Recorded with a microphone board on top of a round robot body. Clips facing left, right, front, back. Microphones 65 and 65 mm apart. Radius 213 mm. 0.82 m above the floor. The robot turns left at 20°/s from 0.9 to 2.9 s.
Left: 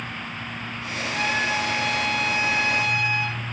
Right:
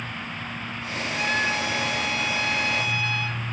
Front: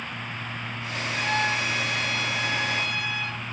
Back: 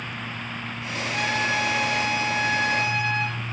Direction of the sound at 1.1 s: 155° left.